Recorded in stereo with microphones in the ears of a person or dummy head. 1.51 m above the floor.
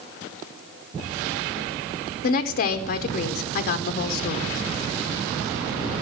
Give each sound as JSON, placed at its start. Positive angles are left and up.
{"t": 2.2, "sound": "a woman speaking", "side_deg": 50, "distance_m": 0.9}